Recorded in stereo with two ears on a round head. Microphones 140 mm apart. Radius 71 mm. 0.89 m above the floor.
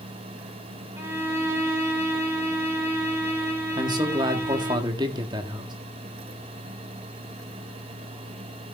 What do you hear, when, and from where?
1.0 s a violin: 15° right (ahead or behind), 3.5 m
3.8 s a man speaking: 25° right (ahead or behind), 1.7 m